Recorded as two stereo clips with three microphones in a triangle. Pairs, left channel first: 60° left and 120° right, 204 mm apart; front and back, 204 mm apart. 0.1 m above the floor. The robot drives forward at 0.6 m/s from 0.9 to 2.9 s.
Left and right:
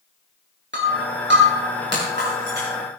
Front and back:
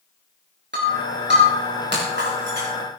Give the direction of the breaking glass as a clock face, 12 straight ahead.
5 o'clock.